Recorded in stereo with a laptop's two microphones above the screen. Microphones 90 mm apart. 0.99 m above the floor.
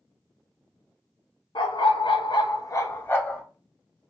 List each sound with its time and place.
1.6 s a dog barking: 70° left (ahead or behind), 1.0 m; by 3.4 s 15° left (ahead or behind), 1.2 m